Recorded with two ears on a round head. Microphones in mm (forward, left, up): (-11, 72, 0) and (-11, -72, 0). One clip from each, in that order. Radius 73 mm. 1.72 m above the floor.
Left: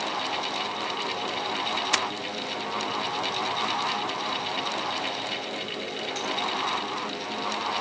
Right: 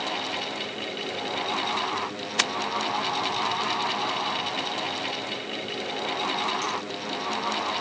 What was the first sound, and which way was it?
Only background noise.